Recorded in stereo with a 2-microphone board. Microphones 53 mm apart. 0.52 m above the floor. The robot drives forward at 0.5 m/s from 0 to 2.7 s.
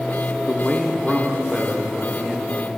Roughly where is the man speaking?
Centre.